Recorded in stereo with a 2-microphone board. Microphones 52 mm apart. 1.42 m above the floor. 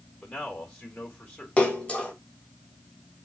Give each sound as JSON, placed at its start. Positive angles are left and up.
{"t": 0.2, "sound": "a man speaking", "side_deg": 25, "distance_m": 3.5}
{"t": 1.6, "sound": "a splash", "side_deg": 20, "distance_m": 1.7}